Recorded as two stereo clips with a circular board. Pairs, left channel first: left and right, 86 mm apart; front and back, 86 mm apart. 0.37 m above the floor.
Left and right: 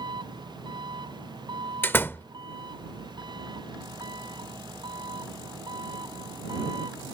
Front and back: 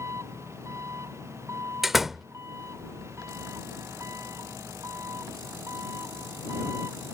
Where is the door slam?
100° left.